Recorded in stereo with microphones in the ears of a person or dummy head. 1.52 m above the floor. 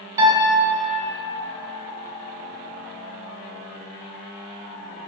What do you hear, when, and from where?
0.2 s a piano: 15° right (ahead or behind), 1.6 m